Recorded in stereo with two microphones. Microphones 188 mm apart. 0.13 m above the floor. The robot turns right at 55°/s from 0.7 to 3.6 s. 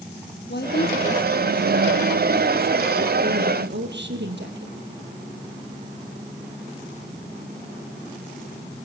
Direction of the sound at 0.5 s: 110° left.